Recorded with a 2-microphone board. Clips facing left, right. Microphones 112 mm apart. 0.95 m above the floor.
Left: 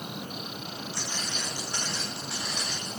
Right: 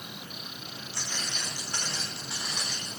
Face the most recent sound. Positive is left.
turn(degrees=-5)  # may be behind; listen again after turning